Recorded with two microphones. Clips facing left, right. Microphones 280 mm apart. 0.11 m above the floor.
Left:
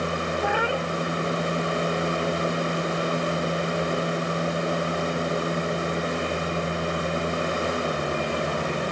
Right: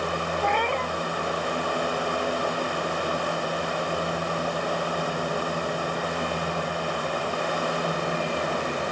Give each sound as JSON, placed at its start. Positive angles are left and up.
{"t": 0.4, "sound": "a cat meowing", "side_deg": 10}